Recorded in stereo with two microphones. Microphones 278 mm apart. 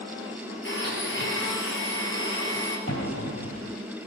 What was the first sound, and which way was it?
A blender, 45° left (ahead or behind).